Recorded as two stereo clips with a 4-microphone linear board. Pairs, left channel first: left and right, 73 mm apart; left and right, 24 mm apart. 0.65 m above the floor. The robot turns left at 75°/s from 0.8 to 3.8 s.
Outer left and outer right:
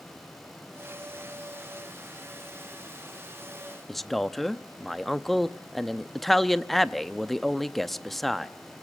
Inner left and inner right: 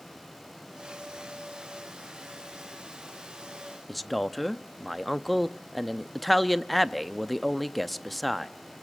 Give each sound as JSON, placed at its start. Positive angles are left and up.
{"t": 3.9, "sound": "a man speaking", "side_deg": 0, "distance_m": 0.6}